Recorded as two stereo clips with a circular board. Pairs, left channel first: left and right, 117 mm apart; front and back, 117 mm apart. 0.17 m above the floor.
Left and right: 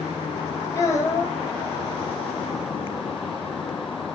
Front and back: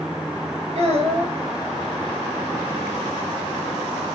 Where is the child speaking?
150° left, 2.5 m.